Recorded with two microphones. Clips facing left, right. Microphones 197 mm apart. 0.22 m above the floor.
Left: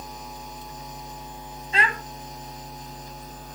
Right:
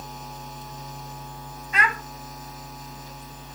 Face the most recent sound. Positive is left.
turn(degrees=30)  # may be behind; listen again after turning